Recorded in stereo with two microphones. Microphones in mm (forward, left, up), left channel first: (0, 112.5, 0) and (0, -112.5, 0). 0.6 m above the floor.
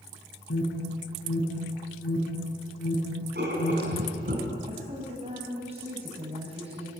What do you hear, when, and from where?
0.5 s an alarm: 80° left, 6.5 m
3.4 s writing: 45° right (ahead or behind), 5.5 m
4.7 s a woman speaking: 25° right (ahead or behind), 5 m